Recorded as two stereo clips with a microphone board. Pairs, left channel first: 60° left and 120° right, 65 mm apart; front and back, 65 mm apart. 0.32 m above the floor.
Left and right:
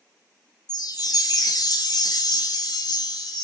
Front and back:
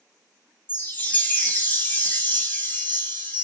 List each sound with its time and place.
0.7 s a chime: 60° left, 1.6 m